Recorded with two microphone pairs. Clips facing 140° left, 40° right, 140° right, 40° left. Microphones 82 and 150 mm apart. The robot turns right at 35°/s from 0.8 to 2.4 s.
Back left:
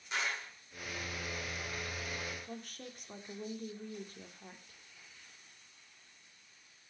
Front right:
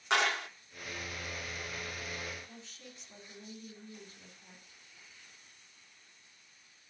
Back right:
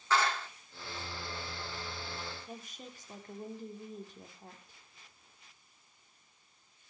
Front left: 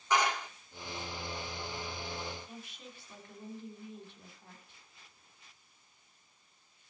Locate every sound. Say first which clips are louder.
0.1 s a clap: front right 8 dB, front left 1 dB; 30° right, 1.9 m
2.5 s a woman speaking: back left 6 dB, back right 2 dB; 175° left, 2.5 m